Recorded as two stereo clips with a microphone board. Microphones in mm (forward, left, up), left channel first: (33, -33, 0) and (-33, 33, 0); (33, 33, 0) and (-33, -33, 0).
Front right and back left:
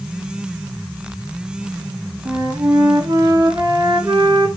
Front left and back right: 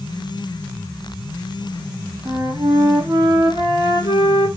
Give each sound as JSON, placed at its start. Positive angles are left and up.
{"t": 2.2, "sound": "a flute", "azimuth_deg": 180, "distance_m": 0.7}